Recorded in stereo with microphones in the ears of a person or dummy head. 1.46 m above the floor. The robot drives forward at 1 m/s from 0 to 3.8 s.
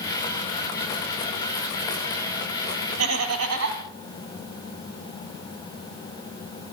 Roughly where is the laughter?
Right.